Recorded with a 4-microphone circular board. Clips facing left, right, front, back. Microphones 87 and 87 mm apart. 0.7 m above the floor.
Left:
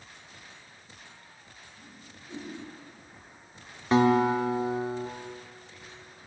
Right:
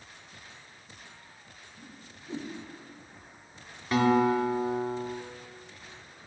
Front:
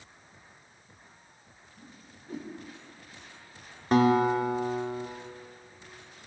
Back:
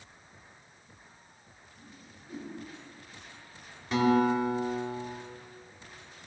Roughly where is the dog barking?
I don't hear a dog barking.